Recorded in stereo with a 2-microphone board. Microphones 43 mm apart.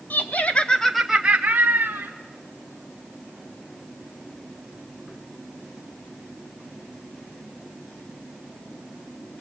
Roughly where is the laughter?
Left.